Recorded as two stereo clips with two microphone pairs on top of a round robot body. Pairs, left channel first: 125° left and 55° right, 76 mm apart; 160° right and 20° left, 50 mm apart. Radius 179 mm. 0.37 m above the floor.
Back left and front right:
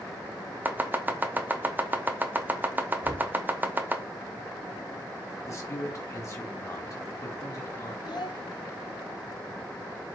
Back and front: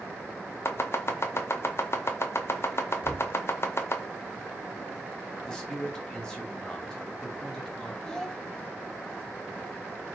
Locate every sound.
0.7 s chopping: 120° right, 0.7 m
3.0 s knocking: 50° right, 1.2 m
5.4 s a man speaking: 115° left, 1.8 m
8.1 s a child speaking: 115° left, 0.8 m